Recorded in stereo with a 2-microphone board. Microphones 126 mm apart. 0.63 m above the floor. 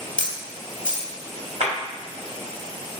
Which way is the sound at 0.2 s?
80° left.